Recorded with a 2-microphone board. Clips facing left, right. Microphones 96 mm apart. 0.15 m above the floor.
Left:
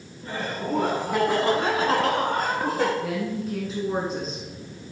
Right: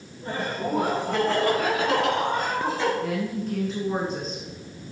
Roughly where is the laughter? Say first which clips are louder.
Right 1 dB; right.